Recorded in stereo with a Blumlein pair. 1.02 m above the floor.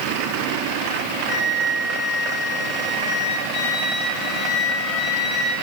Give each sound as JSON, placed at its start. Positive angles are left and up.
{"t": 1.3, "sound": "a flute", "azimuth_deg": 15, "distance_m": 5.0}